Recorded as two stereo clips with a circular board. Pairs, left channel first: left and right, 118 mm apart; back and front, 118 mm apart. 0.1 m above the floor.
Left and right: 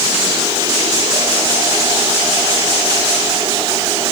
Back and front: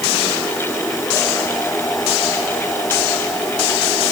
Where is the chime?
I don't hear a chime.